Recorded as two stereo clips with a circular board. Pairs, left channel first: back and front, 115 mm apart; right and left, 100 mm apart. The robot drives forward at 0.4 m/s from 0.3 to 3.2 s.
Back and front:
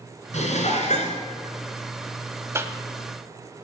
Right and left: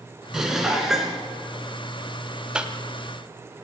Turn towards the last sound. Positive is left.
turn(degrees=55)